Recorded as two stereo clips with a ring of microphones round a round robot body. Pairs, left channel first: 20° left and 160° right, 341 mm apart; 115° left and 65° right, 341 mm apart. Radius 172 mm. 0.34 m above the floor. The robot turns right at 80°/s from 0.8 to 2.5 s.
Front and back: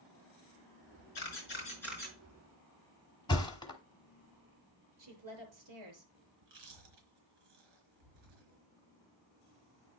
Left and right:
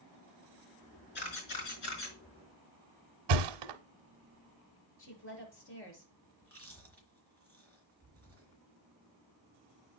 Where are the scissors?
I don't hear scissors.